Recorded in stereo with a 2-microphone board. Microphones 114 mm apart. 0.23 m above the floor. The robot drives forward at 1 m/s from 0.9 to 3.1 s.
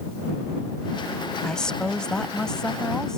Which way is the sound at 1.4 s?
5° left (ahead or behind).